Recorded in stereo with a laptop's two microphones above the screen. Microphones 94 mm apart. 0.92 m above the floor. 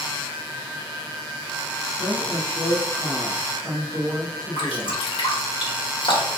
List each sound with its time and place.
2.0 s a woman speaking: centre (ahead or behind), 1.2 m; by 5.0 s 45° right (ahead or behind), 1.2 m
4.6 s dripping: 65° left (ahead or behind), 1.0 m